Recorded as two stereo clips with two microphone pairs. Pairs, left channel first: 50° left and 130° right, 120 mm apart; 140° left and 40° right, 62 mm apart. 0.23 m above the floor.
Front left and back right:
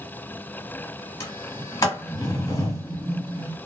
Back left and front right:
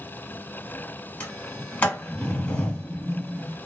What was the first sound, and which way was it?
A sliding door, 85° left.